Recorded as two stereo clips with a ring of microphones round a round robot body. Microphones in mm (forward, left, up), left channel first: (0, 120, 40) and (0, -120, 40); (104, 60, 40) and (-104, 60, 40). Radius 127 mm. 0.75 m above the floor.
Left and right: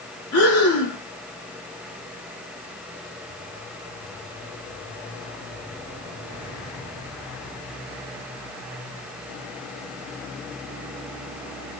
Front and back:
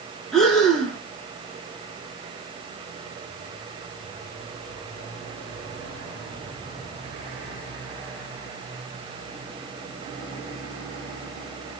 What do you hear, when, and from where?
0.3 s breathing: 85° left, 1.8 m